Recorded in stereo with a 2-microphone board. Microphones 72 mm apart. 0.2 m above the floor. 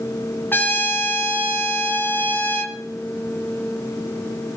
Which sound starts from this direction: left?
A trumpet, at 0.5 s.